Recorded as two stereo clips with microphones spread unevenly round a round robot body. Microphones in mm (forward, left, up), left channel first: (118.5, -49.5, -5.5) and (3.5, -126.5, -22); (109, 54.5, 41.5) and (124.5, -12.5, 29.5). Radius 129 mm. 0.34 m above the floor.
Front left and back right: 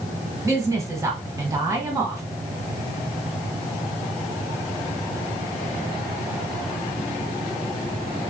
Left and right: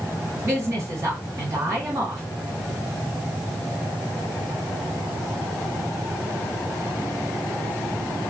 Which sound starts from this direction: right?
A woman speaking, at 0.5 s.